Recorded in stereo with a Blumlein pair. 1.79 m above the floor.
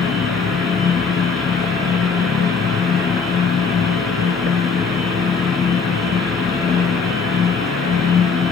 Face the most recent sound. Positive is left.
turn(degrees=25)